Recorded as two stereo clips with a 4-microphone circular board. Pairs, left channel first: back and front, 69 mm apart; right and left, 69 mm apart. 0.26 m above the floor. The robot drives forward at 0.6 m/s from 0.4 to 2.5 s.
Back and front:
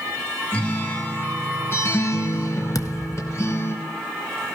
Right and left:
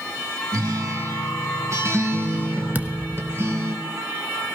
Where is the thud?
155° left, 1.1 m.